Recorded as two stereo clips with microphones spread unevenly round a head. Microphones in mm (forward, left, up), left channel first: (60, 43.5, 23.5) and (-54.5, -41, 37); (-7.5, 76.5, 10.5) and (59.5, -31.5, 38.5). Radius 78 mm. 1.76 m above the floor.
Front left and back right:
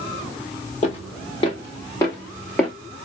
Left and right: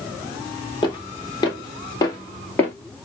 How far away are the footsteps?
About 2 m.